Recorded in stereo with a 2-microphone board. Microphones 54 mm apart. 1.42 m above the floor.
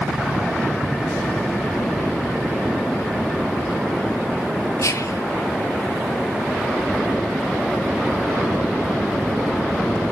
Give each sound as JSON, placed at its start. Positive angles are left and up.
{"t": 4.8, "sound": "whispering", "side_deg": 70, "distance_m": 0.8}